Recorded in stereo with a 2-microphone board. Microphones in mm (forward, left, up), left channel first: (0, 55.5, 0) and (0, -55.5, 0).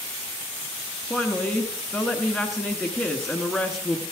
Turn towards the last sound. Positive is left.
turn(degrees=0)  # may be behind; listen again after turning